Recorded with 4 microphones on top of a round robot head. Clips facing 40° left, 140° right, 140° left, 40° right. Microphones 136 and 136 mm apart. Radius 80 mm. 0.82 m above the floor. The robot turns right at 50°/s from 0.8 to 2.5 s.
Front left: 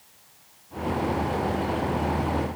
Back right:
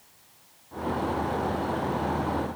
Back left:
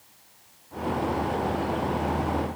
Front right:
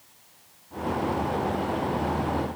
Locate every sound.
Only background noise.